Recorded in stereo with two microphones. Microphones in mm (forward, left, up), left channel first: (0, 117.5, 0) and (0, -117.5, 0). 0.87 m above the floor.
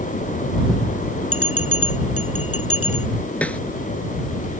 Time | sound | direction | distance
1.3 | a bell | 70° left (ahead or behind) | ?
3.4 | a snare drum | 5° left (ahead or behind) | ?